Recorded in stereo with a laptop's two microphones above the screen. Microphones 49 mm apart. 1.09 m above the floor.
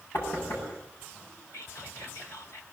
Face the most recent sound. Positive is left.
turn(degrees=70)  # may be behind; listen again after turning